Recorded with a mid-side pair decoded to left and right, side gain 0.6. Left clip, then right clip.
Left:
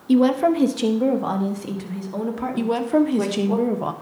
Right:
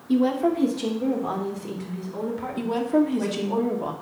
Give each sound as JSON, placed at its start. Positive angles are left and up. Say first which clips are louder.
{"t": 0.1, "sound": "a woman speaking", "louder": "left 5 dB", "azimuth_deg": 65, "distance_m": 1.2}
{"t": 2.6, "sound": "a woman speaking", "louder": "left 3 dB", "azimuth_deg": 30, "distance_m": 1.1}